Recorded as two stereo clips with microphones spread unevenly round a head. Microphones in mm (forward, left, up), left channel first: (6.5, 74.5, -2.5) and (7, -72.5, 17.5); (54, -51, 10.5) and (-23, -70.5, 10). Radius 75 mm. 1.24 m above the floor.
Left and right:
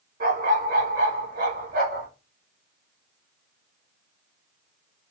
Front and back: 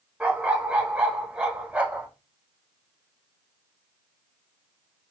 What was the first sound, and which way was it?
A dog barking, 90° right.